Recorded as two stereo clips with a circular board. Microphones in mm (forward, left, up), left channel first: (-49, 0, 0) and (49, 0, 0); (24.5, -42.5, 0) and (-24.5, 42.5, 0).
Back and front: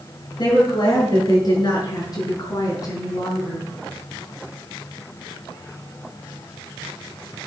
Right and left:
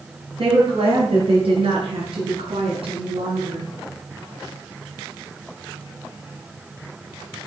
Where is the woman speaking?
140° left, 7.5 m; by 3.7 s 125° left, 4 m.